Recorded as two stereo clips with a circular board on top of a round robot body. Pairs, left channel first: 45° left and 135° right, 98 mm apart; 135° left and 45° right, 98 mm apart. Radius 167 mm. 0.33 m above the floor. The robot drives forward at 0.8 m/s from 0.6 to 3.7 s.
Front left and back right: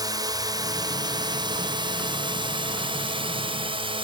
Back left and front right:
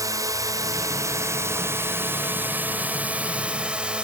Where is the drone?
95° right; by 4.0 s 125° right.